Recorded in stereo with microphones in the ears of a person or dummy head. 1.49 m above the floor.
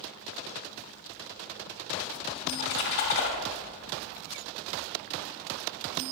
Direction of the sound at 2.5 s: 65° left (ahead or behind).